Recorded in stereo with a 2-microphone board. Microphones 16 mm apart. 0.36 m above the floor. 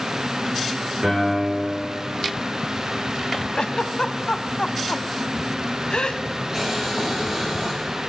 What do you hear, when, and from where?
1.0 s a piano: 45° right (ahead or behind), 4.5 m
3.5 s a giggle: 85° left, 0.5 m
6.5 s boiling: 40° right (ahead or behind), 7.5 m